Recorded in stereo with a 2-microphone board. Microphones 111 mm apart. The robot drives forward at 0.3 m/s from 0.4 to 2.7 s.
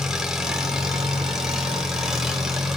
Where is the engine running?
5° right (ahead or behind), 2 m.